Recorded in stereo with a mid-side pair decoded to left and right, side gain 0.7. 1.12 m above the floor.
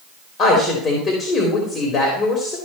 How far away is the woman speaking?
About 3.5 m.